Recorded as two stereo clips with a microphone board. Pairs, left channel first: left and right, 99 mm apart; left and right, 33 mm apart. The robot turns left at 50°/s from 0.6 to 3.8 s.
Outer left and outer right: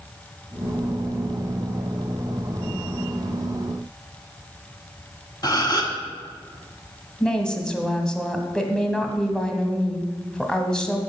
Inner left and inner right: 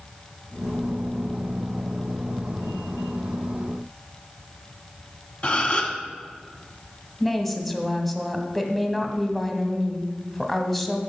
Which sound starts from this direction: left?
A gasp, at 5.4 s.